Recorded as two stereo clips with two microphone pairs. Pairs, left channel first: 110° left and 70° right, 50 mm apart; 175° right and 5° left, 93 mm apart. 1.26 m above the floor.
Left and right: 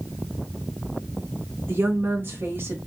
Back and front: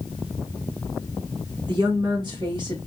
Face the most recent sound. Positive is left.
turn(degrees=-30)